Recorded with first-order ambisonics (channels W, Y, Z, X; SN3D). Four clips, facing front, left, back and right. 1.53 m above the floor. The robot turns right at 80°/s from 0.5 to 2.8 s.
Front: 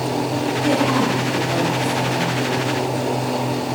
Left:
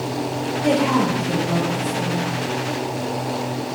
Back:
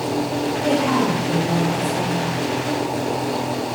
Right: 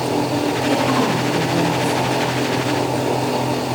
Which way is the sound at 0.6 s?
110° left.